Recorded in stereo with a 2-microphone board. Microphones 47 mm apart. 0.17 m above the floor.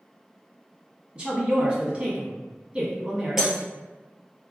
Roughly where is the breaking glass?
Centre.